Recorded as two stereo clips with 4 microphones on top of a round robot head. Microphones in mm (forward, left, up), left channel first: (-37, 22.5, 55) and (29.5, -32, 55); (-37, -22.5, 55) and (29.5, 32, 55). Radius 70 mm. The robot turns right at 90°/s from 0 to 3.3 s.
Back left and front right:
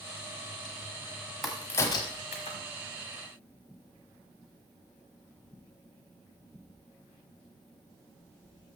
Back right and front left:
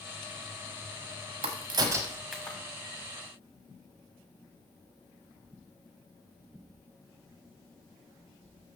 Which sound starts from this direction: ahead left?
A crack, at 1.4 s.